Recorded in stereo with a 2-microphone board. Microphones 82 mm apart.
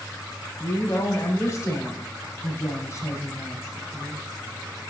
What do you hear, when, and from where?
0.6 s a woman speaking: 35° left (ahead or behind), 7 m